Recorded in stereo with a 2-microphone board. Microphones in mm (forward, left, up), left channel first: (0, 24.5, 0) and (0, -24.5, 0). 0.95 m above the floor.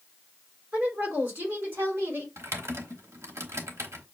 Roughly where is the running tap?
I don't hear a running tap.